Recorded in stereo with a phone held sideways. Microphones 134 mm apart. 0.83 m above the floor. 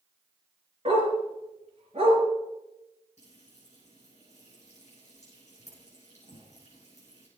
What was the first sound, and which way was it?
A dog barking, 45° right (ahead or behind).